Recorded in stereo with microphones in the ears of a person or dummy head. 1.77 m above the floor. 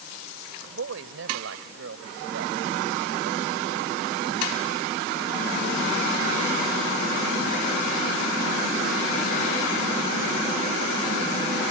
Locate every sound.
0.7 s a woman speaking: 80° right; by 5.2 s 75° right (ahead or behind)